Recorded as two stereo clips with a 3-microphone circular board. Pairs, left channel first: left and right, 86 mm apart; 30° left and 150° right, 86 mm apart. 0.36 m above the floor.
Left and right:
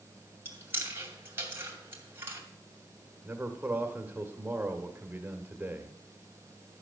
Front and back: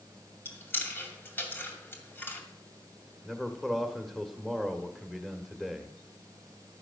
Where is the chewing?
30° right, 2 m.